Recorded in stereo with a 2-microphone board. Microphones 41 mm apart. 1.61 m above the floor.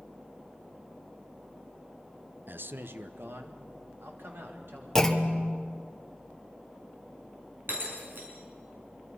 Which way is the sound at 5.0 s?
10° left (ahead or behind).